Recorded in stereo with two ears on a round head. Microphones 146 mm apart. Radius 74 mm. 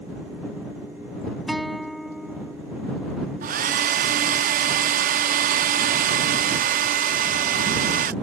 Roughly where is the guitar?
Centre.